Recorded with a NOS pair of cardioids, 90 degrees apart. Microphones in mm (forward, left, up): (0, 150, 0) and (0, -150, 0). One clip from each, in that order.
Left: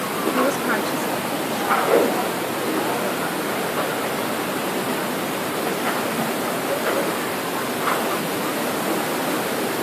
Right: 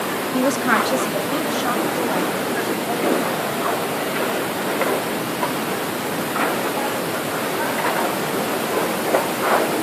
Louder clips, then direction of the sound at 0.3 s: Right 4 dB; 20° right.